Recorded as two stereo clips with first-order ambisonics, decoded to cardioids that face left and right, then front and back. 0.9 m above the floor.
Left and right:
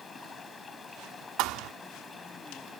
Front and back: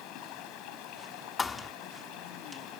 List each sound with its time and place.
0.0 s running water: 20° left
1.4 s a thud: 70° right